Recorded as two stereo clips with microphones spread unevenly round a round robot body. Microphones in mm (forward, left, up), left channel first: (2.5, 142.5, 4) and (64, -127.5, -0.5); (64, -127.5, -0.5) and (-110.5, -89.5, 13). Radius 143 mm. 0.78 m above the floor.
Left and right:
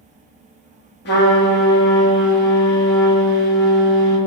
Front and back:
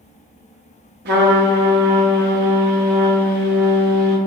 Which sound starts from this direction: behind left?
A trumpet, at 1.1 s.